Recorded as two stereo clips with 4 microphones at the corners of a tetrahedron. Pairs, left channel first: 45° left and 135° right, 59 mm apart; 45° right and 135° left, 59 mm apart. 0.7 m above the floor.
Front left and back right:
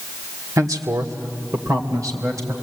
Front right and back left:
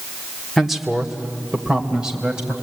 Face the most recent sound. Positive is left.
turn(degrees=-150)